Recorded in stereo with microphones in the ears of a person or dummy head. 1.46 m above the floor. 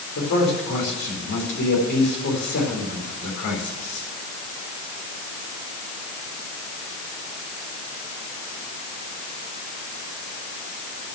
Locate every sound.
0.1 s a man speaking: 60° left (ahead or behind), 4 m